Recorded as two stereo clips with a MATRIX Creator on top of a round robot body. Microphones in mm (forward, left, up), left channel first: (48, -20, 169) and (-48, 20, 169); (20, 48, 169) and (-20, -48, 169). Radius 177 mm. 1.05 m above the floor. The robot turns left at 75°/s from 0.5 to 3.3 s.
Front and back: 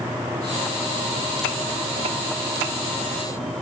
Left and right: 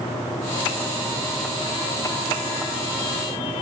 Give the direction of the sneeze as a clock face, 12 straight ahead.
I don't hear a sneeze.